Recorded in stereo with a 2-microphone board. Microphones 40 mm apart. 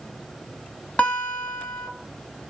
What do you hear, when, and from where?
1.0 s a guitar: 30° left (ahead or behind), 0.7 m